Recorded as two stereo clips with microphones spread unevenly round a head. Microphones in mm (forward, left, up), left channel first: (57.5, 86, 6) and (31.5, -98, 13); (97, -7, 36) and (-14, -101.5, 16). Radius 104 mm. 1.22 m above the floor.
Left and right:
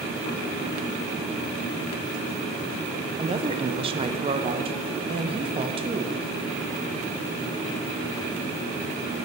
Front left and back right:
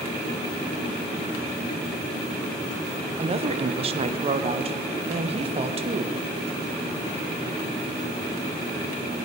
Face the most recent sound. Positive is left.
turn(degrees=-155)